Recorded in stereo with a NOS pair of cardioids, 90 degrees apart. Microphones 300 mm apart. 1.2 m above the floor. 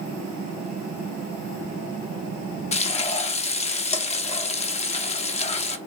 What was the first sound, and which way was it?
Frying, 20° left.